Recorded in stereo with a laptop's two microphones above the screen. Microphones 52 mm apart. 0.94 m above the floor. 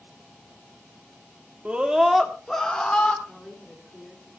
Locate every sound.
1.6 s a scream: 25° right (ahead or behind), 1.5 m; by 3.1 s 20° left (ahead or behind), 2.5 m
3.2 s a woman speaking: 5° left (ahead or behind), 2 m